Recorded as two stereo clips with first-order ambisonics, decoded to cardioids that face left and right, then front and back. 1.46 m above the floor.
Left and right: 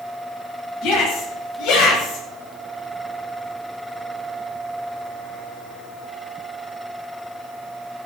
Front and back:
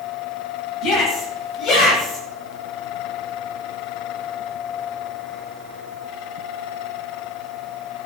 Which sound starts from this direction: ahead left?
A shout, at 0.8 s.